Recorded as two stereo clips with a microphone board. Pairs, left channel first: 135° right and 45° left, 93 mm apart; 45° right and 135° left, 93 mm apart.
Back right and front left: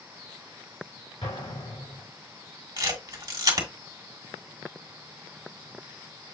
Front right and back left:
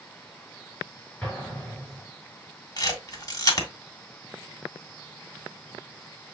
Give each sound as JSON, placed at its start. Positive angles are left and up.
{"t": 1.2, "sound": "an explosion", "azimuth_deg": -125, "distance_m": 3.5}
{"t": 2.8, "sound": "a camera shutter", "azimuth_deg": 5, "distance_m": 1.5}